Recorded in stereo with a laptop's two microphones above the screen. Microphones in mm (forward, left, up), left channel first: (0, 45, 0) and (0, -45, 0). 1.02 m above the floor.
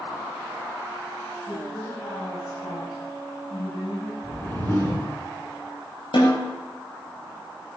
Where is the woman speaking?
75° left (ahead or behind), 7.5 m; by 4.1 s 85° left, 7.5 m.